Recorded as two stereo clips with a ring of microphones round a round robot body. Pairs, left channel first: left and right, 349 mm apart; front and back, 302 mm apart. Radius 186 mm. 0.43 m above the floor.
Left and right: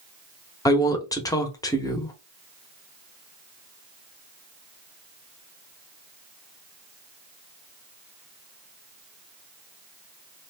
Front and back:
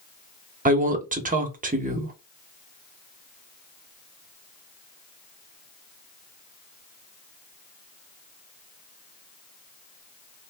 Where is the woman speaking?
160° left, 0.8 m.